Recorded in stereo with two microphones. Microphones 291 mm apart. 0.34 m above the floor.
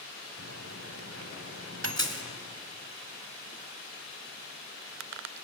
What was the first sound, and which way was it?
A microwave, 55° right (ahead or behind).